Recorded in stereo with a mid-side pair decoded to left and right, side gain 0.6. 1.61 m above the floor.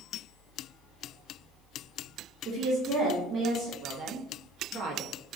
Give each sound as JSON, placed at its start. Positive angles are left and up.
{"t": 2.5, "sound": "a woman speaking", "azimuth_deg": -40, "distance_m": 2.0}
{"t": 3.8, "sound": "a woman speaking", "azimuth_deg": -60, "distance_m": 1.1}